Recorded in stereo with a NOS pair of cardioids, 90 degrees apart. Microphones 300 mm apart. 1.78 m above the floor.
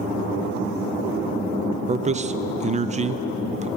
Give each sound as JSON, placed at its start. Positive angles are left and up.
{"t": 1.9, "sound": "a man speaking", "azimuth_deg": -25, "distance_m": 0.7}